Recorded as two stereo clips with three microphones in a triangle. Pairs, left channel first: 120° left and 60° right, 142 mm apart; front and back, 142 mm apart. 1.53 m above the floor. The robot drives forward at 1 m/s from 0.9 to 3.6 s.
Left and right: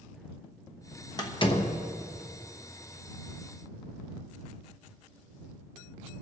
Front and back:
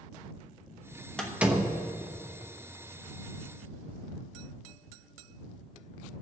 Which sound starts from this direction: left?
A door slam, at 1.2 s.